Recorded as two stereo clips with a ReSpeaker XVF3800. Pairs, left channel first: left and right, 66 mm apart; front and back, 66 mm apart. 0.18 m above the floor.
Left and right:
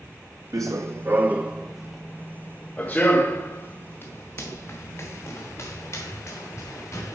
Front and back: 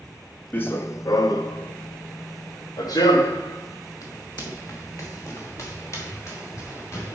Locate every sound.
0.5 s running footsteps: 60° right, 0.7 m; by 7.2 s 45° left, 3.5 m